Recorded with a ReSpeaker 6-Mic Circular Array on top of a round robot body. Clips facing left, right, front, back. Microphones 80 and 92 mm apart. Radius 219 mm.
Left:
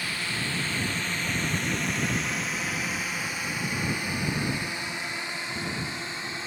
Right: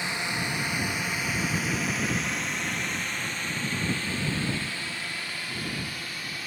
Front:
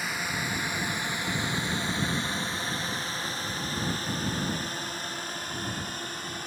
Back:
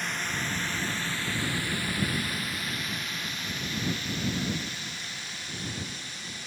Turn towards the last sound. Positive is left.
turn(degrees=30)